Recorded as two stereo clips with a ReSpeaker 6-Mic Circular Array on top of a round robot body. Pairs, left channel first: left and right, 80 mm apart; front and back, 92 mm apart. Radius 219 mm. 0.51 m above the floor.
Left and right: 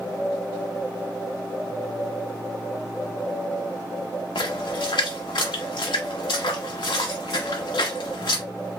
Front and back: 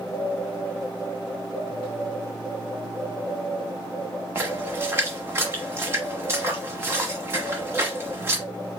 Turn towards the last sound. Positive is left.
turn(degrees=115)